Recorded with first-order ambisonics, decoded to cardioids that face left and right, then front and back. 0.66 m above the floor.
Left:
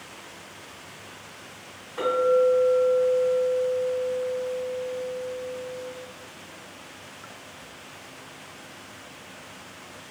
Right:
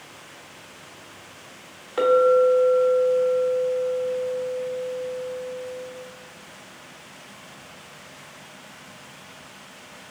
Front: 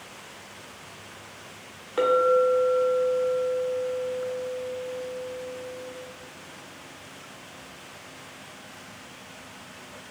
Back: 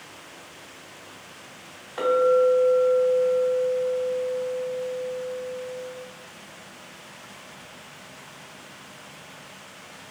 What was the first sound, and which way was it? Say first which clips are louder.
A clink: right 4 dB, back 1 dB; 45° right.